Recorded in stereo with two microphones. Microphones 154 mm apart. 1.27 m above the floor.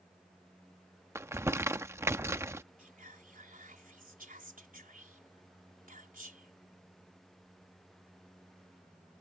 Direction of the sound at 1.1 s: 20° right (ahead or behind).